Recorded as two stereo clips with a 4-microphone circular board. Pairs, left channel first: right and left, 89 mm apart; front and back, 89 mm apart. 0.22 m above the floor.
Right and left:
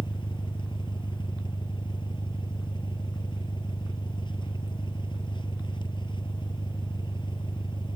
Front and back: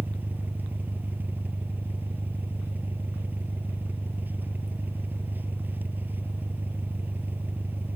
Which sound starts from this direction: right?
An engine running, at 0.0 s.